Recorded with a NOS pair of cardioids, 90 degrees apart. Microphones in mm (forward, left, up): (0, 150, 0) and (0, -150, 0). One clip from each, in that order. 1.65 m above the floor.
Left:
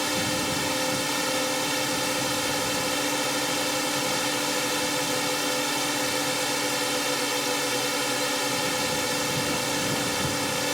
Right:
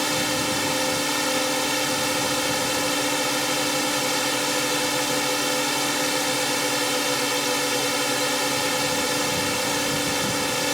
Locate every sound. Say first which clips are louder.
0.0 s a drone: right 3 dB; 25° right